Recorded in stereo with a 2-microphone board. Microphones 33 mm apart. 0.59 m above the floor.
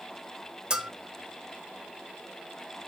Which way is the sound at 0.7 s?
25° right (ahead or behind).